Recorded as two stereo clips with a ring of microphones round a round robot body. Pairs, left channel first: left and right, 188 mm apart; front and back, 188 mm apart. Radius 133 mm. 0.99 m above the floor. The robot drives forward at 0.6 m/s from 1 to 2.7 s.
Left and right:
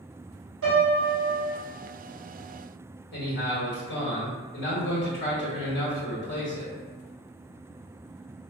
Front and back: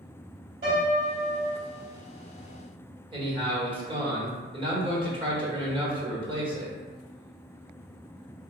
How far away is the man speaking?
About 1.3 m.